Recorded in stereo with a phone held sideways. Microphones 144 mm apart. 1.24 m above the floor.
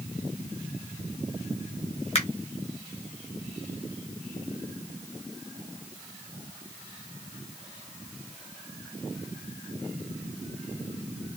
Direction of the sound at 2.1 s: 45° left (ahead or behind).